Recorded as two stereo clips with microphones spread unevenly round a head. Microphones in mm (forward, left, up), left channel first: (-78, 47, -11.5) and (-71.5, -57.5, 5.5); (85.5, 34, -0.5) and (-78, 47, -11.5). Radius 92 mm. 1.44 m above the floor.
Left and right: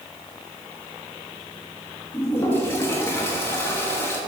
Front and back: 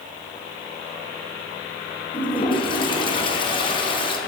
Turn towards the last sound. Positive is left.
turn(degrees=20)